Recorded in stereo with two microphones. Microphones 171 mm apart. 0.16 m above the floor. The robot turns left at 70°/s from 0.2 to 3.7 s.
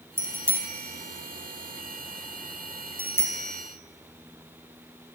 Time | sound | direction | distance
0.2 | a bicycle bell | 15° right (ahead or behind) | 3 m